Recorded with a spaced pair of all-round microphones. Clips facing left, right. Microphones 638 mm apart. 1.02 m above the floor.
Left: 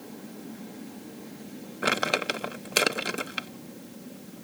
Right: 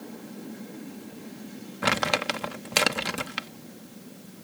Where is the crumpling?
30° right (ahead or behind).